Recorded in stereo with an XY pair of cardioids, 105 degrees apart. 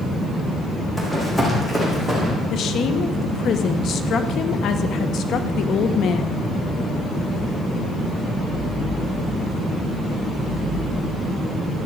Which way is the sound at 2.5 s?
65° left.